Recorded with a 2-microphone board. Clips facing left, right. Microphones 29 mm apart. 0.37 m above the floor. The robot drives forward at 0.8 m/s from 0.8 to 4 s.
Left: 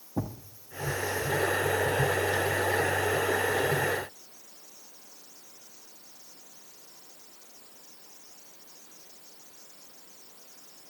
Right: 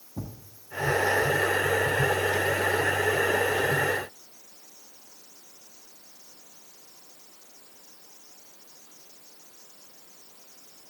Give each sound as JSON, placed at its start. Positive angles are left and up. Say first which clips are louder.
{"t": 0.2, "sound": "a thud", "louder": "left 6 dB", "side_deg": 75, "distance_m": 1.2}